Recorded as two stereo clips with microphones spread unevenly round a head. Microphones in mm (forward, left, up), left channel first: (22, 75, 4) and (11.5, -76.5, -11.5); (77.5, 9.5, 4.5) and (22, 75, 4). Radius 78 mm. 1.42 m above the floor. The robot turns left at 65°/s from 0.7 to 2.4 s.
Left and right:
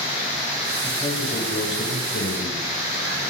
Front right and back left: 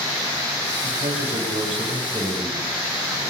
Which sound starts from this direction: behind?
A man speaking, at 0.8 s.